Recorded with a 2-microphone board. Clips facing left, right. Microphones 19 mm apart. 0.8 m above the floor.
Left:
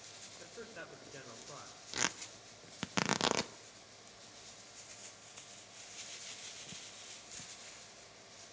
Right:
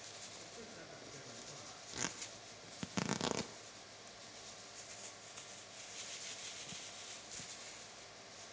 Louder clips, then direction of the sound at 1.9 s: Left 7 dB; 30° left (ahead or behind).